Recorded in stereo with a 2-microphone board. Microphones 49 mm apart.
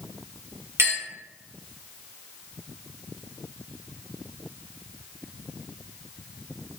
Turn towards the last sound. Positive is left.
turn(degrees=-55)  # may be behind; listen again after turning